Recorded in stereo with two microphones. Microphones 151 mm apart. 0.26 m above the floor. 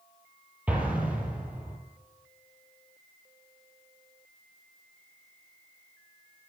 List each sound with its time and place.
0.7 s an explosion: 10° right (ahead or behind), 3 m